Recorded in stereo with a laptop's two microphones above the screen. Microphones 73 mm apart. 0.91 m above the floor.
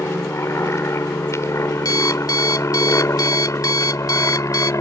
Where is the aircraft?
35° left (ahead or behind); by 4.8 s 45° left (ahead or behind).